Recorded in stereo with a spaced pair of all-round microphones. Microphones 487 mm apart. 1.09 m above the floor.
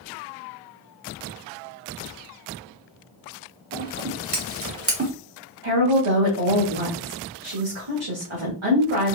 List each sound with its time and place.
3.7 s scissors: 30° right (ahead or behind), 1.2 m
5.6 s a woman speaking: 80° right, 1.6 m